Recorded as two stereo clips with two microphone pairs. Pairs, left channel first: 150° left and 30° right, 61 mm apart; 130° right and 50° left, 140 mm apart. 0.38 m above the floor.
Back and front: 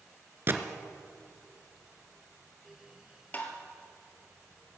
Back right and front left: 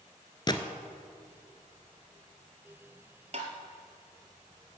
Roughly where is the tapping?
Left.